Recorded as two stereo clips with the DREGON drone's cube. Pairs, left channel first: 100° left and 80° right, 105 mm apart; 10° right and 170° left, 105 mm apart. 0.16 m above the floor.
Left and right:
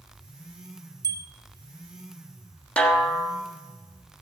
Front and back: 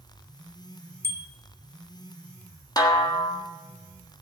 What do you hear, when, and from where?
1.0 s a bicycle bell: 125° right, 2 m
2.8 s a snare drum: 25° left, 1.4 m